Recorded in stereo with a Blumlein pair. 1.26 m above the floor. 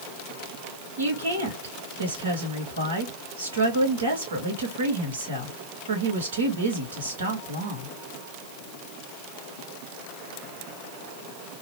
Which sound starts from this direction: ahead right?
A woman speaking, at 1.0 s.